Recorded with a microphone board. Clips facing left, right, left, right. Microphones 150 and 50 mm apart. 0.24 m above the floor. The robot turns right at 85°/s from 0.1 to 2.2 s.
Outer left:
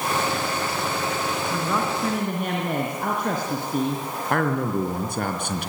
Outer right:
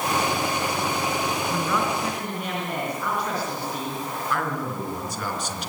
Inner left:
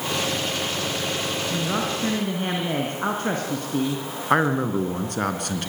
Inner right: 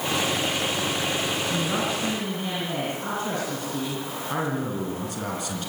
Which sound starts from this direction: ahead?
A man speaking, at 1.5 s.